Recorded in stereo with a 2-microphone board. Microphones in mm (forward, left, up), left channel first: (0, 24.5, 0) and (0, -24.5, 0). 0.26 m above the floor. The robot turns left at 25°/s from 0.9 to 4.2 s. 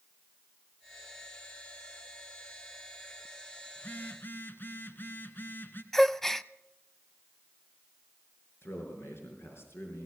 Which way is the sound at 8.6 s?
55° left (ahead or behind).